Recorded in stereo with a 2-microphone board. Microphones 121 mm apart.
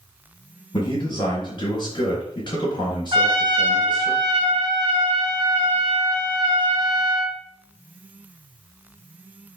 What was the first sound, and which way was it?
A man speaking, 40° left (ahead or behind).